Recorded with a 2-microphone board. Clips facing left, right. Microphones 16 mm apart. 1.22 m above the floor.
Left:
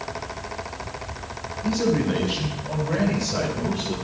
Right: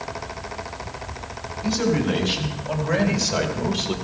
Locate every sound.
1.6 s a man speaking: 90° right, 6 m; by 4.0 s 70° right (ahead or behind), 3 m